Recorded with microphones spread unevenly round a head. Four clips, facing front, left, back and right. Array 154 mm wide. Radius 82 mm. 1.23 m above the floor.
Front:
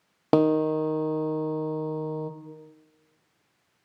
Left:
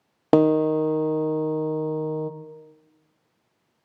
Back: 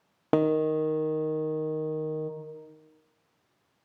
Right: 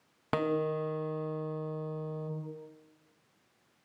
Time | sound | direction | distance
0.3 | a guitar | 80° left | 1.4 m